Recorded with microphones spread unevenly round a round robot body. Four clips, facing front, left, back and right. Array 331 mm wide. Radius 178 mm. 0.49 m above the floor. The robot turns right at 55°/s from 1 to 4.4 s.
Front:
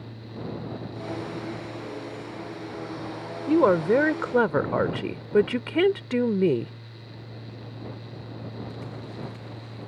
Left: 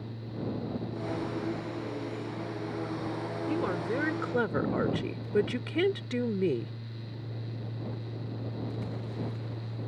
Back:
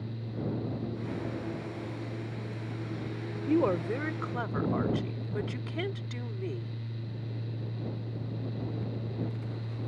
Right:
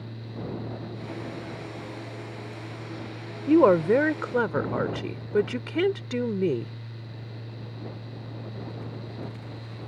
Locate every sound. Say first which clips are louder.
3.5 s a woman speaking: right 15 dB, front 8 dB; 70° right; by 6.7 s 20° right